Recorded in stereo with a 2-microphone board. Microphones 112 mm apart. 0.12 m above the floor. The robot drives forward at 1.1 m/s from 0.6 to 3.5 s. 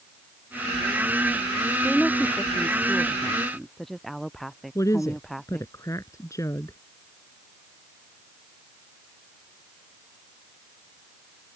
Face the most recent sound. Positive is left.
turn(degrees=30)  # may be behind; listen again after turning